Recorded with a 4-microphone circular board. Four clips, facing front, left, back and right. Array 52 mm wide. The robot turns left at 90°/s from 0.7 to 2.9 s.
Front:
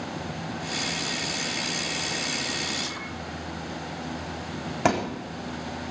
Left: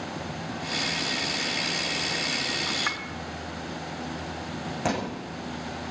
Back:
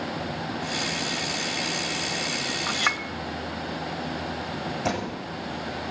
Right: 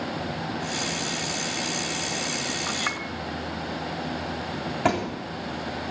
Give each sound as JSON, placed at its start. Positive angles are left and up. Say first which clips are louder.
{"t": 2.7, "sound": "a clink", "louder": "right 1 dB, back 7 dB", "azimuth_deg": -160, "distance_m": 1.4}
{"t": 4.8, "sound": "a thud", "louder": "right 4 dB, front 7 dB", "azimuth_deg": -25, "distance_m": 3.5}